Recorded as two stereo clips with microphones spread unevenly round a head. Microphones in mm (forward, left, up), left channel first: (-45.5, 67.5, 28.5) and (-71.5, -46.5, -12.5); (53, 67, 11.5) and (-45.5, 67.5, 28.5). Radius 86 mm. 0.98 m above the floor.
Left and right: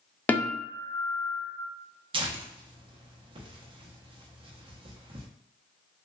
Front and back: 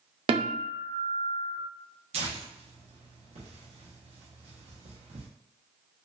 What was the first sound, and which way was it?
A guitar, 170° left.